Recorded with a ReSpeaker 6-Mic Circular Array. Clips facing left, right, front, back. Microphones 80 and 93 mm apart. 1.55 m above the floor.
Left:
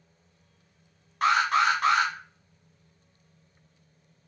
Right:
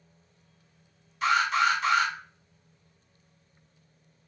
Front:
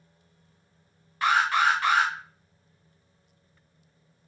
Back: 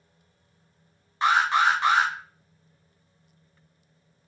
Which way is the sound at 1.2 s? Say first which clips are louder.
Left 2 dB, back 2 dB; 115° left.